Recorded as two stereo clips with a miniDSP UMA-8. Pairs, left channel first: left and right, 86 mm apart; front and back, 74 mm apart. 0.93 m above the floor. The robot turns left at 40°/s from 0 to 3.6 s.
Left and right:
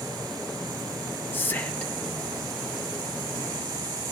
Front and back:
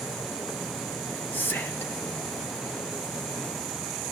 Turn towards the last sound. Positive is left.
turn(degrees=-45)